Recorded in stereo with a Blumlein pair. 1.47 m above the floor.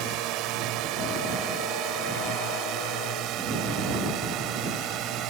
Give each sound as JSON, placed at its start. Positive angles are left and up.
{"t": 0.0, "sound": "a drone", "azimuth_deg": -40}